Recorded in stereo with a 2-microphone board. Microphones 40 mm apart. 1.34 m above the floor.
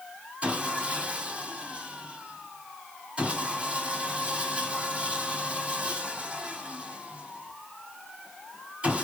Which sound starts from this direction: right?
Sawing, at 0.4 s.